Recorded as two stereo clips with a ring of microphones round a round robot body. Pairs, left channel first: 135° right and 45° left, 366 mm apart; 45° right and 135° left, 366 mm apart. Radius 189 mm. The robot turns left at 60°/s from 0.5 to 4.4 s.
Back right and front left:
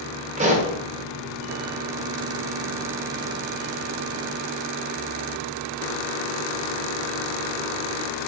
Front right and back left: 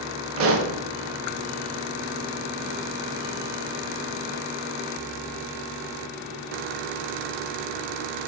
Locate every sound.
0.4 s a pop: 105° left, 0.5 m; by 0.7 s 90° left, 0.5 m